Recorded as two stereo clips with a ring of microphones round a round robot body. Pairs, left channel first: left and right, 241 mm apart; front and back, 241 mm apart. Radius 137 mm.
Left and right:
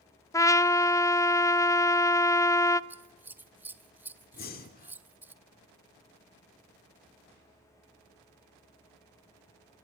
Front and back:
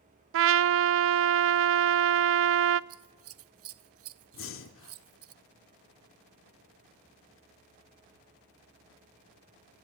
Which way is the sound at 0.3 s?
165° left.